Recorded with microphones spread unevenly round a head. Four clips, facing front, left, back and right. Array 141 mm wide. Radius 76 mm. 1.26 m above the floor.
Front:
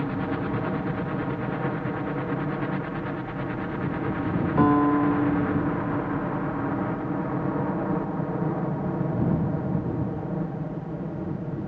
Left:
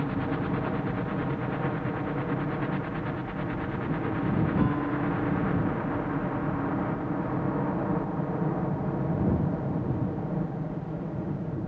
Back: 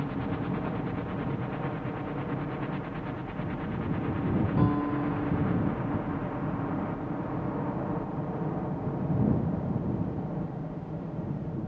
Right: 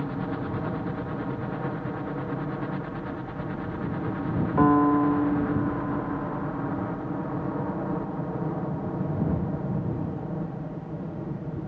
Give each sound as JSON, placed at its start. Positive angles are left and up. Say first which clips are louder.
{"t": 0.0, "sound": "a helicopter", "louder": "left 1 dB, front 5 dB", "azimuth_deg": 0}
{"t": 4.6, "sound": "a piano", "louder": "right 8 dB, front 11 dB", "azimuth_deg": -45}